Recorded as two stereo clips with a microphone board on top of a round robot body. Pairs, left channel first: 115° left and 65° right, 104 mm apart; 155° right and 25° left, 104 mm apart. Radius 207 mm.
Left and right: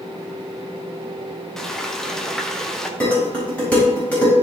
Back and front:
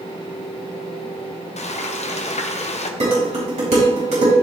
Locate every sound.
1.6 s frying: 165° right, 1.0 m
3.0 s dishes clattering: 35° left, 4.5 m